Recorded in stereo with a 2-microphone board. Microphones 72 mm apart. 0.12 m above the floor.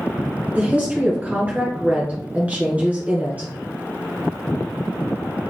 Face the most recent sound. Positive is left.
turn(degrees=-20)  # may be behind; listen again after turning